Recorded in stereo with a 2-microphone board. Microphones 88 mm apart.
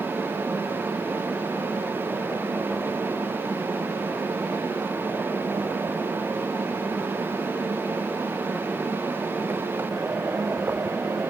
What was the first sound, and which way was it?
Only background noise.